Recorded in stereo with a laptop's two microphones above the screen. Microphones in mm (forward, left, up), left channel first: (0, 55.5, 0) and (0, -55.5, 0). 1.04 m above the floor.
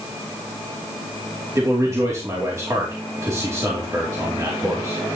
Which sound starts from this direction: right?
A man speaking, at 1.6 s.